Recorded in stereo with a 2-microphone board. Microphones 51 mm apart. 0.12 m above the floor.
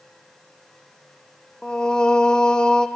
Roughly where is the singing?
Centre.